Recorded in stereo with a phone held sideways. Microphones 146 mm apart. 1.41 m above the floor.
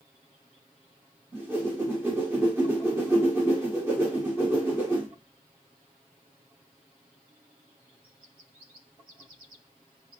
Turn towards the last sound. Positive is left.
turn(degrees=-15)  # may be behind; listen again after turning